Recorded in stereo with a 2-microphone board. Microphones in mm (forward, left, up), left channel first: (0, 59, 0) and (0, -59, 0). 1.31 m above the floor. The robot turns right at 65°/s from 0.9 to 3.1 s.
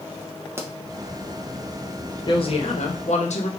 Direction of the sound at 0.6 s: 20° right (ahead or behind).